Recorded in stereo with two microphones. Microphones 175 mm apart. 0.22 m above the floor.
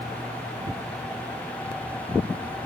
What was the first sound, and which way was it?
Only background noise.